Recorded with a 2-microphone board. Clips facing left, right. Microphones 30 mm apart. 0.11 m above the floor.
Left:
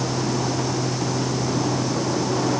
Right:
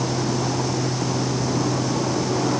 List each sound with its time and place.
Only background noise.